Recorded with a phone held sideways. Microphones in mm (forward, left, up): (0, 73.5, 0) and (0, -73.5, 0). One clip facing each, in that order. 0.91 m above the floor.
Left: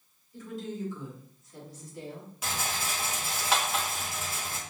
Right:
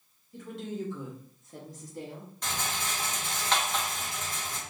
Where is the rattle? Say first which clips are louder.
Left 1 dB; 5° left (ahead or behind), 0.9 m.